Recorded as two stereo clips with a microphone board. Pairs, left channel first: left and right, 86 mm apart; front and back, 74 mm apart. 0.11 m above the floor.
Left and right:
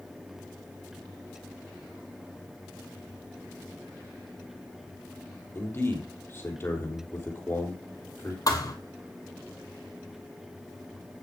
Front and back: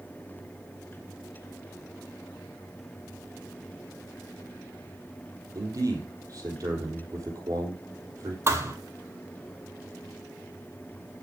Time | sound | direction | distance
5.5 | a man speaking | 150° left | 3 m
8.5 | a thud | 130° left | 1.5 m